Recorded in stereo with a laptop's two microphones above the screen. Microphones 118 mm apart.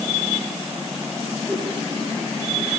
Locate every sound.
1.5 s a whoosh: 5° right (ahead or behind), 2 m